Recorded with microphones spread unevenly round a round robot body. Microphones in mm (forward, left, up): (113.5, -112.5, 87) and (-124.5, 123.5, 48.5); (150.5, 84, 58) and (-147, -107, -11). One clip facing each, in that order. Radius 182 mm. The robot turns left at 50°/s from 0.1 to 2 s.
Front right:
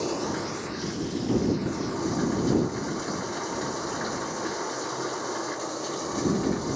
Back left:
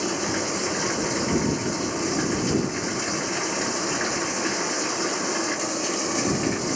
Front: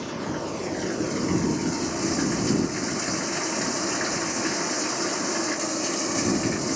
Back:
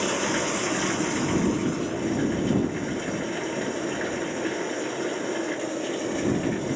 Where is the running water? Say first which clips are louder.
Back left 2 dB, back 4 dB; 170° right; by 6.8 s 95° left.